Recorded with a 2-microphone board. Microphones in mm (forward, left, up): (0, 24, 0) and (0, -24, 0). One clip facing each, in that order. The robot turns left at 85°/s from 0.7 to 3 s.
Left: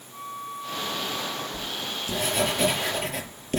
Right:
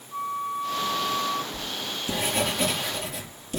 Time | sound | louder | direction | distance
0.1 | a flute | right 7 dB | 35° right | 2 m
1.5 | writing | even | 105° right | 4.5 m